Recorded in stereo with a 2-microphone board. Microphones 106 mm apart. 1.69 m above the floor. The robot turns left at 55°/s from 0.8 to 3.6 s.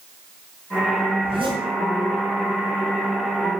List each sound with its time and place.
1.2 s a zipper: 70° right (ahead or behind), 6.5 m; by 1.6 s 45° right (ahead or behind), 6.5 m